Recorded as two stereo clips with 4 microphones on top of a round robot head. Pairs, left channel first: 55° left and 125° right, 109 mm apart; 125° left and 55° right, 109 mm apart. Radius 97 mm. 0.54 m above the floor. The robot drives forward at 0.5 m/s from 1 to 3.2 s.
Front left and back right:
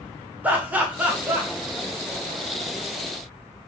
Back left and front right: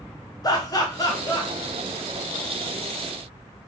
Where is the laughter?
165° left, 0.8 m; by 1.5 s 170° left, 1.0 m.